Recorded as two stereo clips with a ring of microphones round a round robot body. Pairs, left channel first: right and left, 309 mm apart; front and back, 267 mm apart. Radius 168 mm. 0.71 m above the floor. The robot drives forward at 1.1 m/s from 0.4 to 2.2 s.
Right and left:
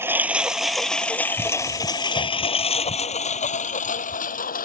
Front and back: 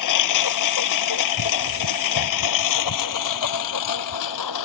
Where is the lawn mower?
5° left; by 4.7 s 25° right.